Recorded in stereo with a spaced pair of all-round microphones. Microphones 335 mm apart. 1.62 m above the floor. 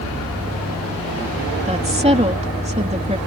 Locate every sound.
1.6 s a woman speaking: 20° right (ahead or behind)